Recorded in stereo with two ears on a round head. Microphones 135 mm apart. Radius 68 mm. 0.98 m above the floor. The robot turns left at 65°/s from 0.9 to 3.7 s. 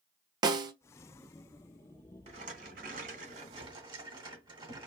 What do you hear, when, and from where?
0.4 s a snare drum: 25° right (ahead or behind), 0.6 m
2.3 s a rattle: 45° right, 1.2 m; by 4.9 s 140° right, 1.2 m